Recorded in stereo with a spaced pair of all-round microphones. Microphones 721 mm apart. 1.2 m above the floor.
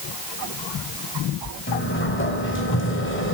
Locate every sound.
1.7 s a sliding door: 15° left (ahead or behind), 3 m